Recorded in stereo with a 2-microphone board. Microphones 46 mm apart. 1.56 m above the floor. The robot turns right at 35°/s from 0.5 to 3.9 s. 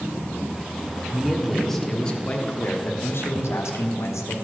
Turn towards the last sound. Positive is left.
turn(degrees=80)